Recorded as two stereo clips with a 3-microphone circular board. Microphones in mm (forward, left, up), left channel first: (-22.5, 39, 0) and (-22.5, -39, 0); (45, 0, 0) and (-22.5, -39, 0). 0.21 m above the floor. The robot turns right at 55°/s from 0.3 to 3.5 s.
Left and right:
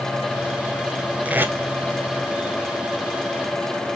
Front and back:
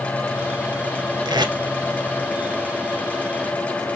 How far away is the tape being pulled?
About 1.0 m.